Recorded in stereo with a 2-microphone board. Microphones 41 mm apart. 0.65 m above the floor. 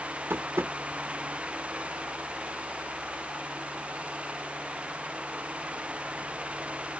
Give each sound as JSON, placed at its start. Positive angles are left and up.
{"t": 0.3, "sound": "tapping", "side_deg": -65, "distance_m": 0.5}